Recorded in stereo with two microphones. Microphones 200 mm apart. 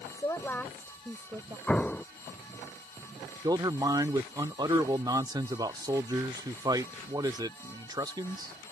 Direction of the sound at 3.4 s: 20° right (ahead or behind).